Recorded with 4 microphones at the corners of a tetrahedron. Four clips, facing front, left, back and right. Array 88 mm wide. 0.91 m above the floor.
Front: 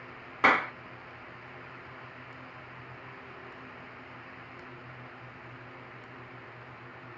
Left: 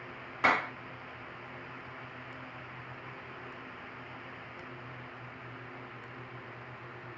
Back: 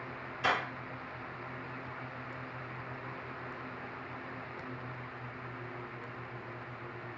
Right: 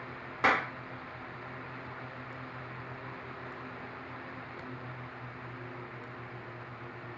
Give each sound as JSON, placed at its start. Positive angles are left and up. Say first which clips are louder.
{"t": 0.4, "sound": "a clap", "louder": "even, front 7 dB", "azimuth_deg": -10, "distance_m": 1.3}